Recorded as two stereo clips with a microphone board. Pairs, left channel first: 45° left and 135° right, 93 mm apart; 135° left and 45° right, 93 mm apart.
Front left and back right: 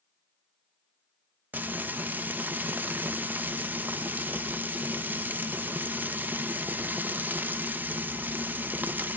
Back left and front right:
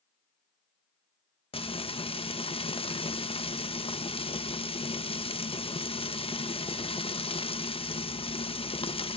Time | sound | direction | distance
1.5 | frying | 155° left | 0.9 m